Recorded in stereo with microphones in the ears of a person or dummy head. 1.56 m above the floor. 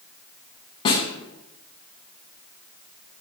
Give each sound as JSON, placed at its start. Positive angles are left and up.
{"t": 0.8, "sound": "a snare drum", "side_deg": 30, "distance_m": 0.8}